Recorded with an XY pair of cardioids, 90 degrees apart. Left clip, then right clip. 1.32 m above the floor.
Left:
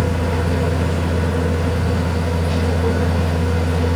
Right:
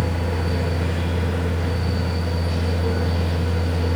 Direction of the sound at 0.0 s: 50° left.